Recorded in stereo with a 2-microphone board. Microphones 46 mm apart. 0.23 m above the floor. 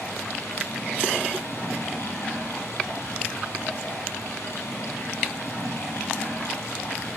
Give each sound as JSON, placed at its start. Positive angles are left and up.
{"t": 0.0, "sound": "running water", "side_deg": 80, "distance_m": 6.5}